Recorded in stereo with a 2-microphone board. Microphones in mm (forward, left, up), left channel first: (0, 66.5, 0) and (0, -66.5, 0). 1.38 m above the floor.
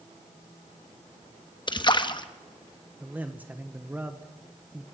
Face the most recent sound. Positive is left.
turn(degrees=-10)  # may be behind; listen again after turning